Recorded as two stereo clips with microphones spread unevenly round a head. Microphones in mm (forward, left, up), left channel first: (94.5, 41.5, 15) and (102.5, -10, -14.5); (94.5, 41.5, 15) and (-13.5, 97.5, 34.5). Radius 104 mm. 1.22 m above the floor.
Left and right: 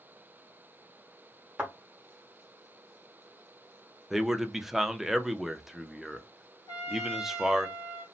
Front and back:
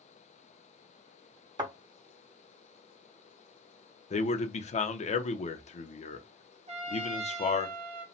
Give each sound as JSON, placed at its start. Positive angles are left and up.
{"t": 1.6, "sound": "a thud", "azimuth_deg": 170, "distance_m": 1.0}
{"t": 4.1, "sound": "a man speaking", "azimuth_deg": -5, "distance_m": 0.7}
{"t": 6.7, "sound": "a trumpet", "azimuth_deg": 120, "distance_m": 1.4}